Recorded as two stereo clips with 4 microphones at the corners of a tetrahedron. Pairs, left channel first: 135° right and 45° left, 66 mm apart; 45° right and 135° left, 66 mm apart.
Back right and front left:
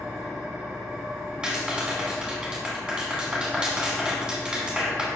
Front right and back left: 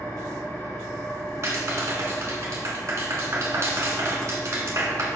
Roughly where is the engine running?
Ahead right.